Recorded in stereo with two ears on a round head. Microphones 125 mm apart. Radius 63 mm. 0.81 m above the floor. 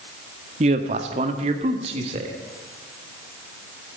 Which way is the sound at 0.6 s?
50° right (ahead or behind).